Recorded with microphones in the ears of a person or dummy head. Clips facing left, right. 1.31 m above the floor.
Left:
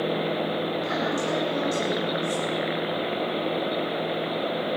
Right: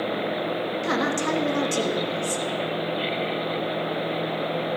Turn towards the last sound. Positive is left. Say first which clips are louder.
# right 2 dB
turn(degrees=-70)  # may be behind; listen again after turning